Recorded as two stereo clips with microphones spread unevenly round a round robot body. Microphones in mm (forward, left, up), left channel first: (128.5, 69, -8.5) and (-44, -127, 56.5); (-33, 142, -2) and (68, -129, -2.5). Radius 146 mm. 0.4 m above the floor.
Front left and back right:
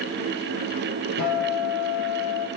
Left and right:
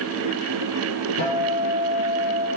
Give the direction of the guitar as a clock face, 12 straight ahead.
9 o'clock.